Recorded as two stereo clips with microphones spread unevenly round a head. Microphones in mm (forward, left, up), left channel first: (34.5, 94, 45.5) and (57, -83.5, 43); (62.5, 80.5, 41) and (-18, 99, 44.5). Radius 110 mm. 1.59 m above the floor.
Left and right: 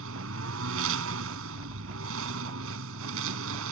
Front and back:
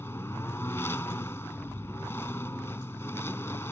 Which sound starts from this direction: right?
A lawn mower, at 0.0 s.